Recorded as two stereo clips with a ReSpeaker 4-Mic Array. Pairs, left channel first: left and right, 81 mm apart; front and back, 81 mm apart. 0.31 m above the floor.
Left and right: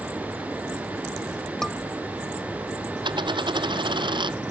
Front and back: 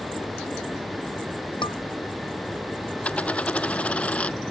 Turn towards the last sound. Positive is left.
turn(degrees=-75)